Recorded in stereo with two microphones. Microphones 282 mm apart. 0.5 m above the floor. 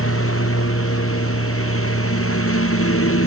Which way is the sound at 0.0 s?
50° left (ahead or behind).